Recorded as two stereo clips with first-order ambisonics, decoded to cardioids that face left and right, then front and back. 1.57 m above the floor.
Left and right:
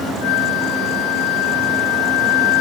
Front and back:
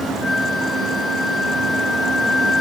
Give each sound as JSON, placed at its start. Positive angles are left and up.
{"t": 0.2, "sound": "a flute", "azimuth_deg": 80}